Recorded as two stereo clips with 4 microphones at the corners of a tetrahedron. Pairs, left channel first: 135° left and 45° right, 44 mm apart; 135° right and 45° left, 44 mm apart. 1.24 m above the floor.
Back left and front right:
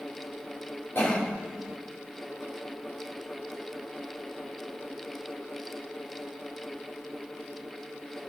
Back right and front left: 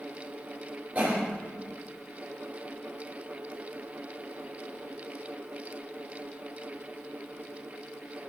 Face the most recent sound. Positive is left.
turn(degrees=100)